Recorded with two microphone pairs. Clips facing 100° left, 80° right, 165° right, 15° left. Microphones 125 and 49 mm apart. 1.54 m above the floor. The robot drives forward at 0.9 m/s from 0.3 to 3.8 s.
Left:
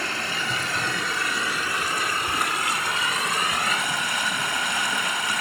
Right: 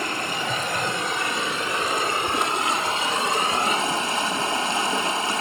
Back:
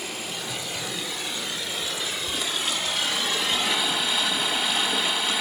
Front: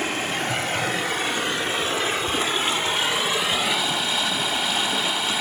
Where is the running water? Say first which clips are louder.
Right 3 dB, front 8 dB; 10° right, 3.5 m; by 5.4 s 85° right, 1.5 m.